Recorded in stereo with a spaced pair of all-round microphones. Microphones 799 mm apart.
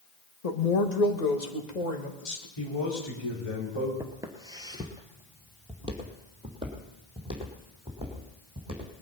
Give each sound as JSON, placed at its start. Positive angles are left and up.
{"t": 0.4, "sound": "a woman speaking", "side_deg": 50, "distance_m": 1.5}
{"t": 2.6, "sound": "a man speaking", "side_deg": 40, "distance_m": 4.0}
{"t": 4.0, "sound": "footsteps", "side_deg": -5, "distance_m": 1.7}